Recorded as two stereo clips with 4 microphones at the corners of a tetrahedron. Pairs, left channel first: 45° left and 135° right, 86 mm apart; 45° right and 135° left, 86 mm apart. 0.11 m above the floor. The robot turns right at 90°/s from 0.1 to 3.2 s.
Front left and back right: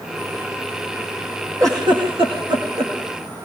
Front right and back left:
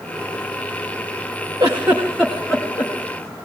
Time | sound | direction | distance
1.6 | a giggle | 175° left | 8 m